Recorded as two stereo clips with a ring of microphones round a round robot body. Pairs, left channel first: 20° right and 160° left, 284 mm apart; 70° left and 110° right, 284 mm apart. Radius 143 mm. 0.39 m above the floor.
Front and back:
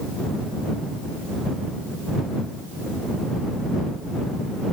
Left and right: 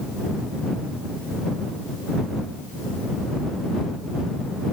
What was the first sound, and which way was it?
Only background noise.